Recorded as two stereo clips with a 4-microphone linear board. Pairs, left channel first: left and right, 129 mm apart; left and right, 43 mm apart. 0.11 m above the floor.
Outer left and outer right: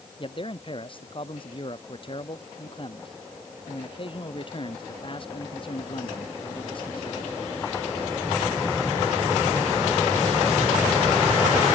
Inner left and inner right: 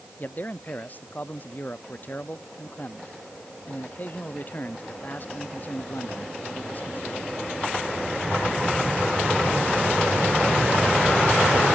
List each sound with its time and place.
0.2 s a man speaking: 40° left (ahead or behind)